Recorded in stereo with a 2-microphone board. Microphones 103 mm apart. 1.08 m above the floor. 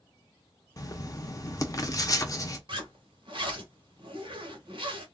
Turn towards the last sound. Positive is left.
turn(degrees=-55)  # may be behind; listen again after turning